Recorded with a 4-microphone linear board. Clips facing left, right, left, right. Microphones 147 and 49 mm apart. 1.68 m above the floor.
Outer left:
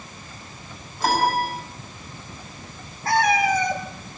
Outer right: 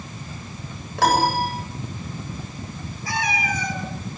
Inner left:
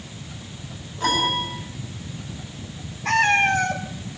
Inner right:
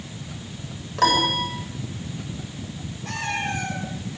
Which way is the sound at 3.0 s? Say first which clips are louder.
Outer left 7 dB, inner left 10 dB; 60° left (ahead or behind).